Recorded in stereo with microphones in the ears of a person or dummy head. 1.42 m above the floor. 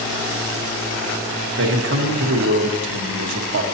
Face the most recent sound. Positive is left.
turn(degrees=-65)  # may be behind; listen again after turning